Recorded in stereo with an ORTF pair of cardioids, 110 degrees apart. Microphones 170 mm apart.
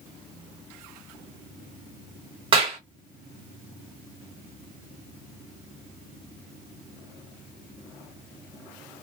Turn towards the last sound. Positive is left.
turn(degrees=-30)